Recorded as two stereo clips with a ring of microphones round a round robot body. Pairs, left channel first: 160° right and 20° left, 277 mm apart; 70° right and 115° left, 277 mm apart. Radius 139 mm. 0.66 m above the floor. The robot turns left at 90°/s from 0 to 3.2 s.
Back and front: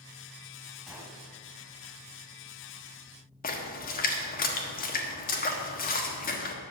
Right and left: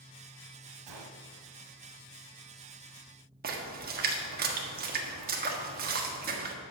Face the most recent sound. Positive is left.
turn(degrees=155)